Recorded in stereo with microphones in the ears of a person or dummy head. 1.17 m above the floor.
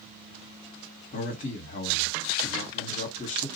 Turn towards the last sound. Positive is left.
turn(degrees=45)  # may be behind; listen again after turning